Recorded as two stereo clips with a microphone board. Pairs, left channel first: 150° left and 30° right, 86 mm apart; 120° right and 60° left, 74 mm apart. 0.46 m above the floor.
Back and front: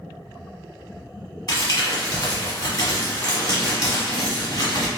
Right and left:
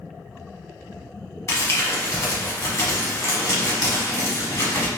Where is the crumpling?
175° right, 1.2 m.